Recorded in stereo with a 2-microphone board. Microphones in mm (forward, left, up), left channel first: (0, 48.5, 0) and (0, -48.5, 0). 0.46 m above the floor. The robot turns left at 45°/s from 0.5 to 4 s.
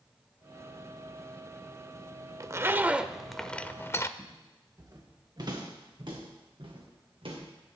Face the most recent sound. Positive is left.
turn(degrees=-70)  # may be behind; listen again after turning